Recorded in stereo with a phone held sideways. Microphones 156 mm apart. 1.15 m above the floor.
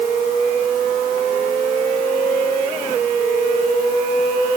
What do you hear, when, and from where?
Only background noise.